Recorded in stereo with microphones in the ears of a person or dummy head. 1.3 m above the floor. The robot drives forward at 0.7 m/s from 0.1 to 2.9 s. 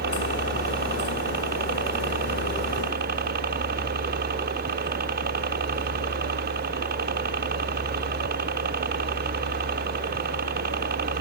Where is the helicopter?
55° right (ahead or behind); by 11.2 s 50° right (ahead or behind).